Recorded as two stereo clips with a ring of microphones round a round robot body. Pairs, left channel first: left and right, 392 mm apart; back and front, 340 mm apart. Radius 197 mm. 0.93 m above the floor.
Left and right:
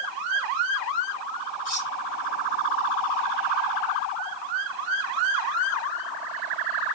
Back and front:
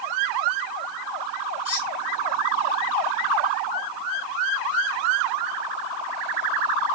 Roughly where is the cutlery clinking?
Behind.